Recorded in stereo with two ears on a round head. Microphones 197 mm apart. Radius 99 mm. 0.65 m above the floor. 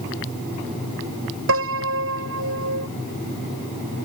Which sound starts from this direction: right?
A piano, at 1.5 s.